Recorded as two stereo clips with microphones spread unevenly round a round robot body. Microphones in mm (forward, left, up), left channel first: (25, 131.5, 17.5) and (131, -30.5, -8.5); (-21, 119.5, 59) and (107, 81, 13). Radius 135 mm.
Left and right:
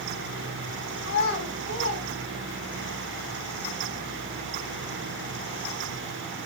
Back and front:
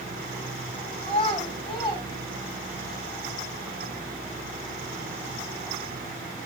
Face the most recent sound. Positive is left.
turn(degrees=110)